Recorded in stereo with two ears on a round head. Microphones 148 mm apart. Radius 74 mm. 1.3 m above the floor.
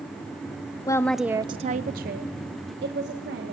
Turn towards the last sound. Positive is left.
turn(degrees=-70)  # may be behind; listen again after turning